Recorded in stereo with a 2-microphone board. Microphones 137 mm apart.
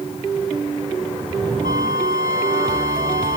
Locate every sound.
1.6 s a flute: 70° left (ahead or behind)